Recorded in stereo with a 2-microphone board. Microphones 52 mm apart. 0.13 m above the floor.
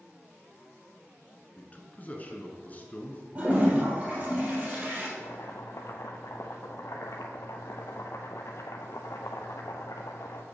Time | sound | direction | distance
1.6 | a man speaking | 30° left (ahead or behind) | 1.2 m
3.4 | a toilet flushing | 30° right (ahead or behind) | 2.5 m
5.2 | boiling | 65° left (ahead or behind) | 0.7 m